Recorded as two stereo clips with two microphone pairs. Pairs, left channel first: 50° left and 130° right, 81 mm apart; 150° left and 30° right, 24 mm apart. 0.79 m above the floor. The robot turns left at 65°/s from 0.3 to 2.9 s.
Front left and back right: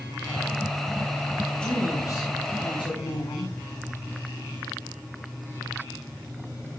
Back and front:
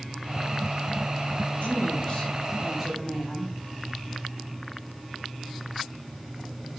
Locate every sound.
1.6 s a woman speaking: 130° left, 4 m; by 3.5 s 45° left, 4 m